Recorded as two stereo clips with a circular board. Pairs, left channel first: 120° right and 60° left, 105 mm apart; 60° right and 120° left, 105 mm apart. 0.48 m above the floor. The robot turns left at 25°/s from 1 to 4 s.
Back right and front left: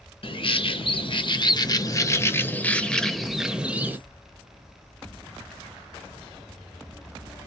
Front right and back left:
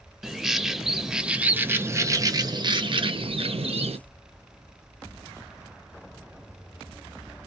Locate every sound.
0.2 s a bird: 155° right, 0.5 m; by 4.0 s 130° left, 0.5 m